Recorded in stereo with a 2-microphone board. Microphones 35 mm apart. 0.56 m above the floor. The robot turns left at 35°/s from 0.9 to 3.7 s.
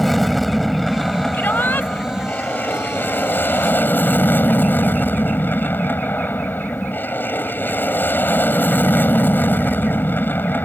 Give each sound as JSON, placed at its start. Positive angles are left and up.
{"t": 0.0, "sound": "an aircraft", "azimuth_deg": 175}
{"t": 1.3, "sound": "a shout", "side_deg": 70}